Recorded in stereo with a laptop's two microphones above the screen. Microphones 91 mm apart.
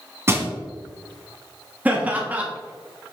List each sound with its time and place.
0.3 s crushing: 30° right (ahead or behind), 2.0 m
1.9 s laughter: 20° right (ahead or behind), 1.1 m